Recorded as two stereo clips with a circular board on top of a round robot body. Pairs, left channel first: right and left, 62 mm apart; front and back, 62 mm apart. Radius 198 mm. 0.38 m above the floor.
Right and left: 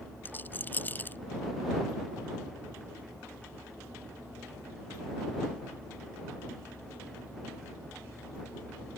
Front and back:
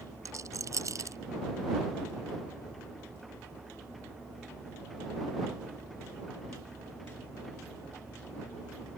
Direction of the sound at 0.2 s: 150° right.